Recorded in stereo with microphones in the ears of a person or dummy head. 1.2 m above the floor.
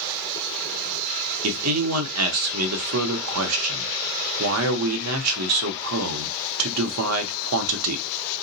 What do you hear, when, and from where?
1.4 s a man speaking: 75° right (ahead or behind), 0.7 m